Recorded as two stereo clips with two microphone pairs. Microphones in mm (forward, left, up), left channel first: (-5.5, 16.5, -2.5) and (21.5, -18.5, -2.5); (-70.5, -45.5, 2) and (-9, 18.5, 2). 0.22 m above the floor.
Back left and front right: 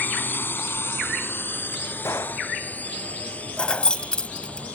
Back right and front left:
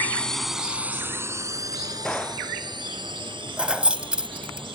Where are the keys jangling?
110° left.